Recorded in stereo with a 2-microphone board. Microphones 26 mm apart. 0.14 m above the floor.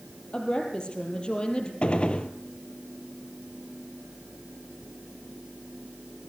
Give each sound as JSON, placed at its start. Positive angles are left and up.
{"t": 0.3, "sound": "a woman speaking", "side_deg": 40, "distance_m": 3.5}
{"t": 1.8, "sound": "a gunshot", "side_deg": 45, "distance_m": 1.2}